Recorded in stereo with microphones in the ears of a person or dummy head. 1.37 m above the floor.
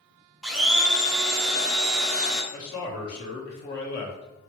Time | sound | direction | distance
0.4 | a blender | centre (ahead or behind) | 0.5 m
2.5 | a man speaking | 55° left (ahead or behind) | 0.9 m